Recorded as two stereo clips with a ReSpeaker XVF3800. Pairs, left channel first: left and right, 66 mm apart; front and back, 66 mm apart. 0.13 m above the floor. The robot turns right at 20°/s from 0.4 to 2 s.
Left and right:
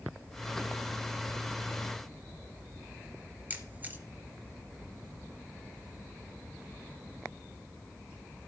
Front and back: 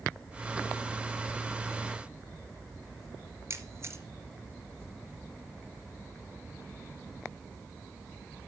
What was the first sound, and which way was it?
A camera shutter, 145° right.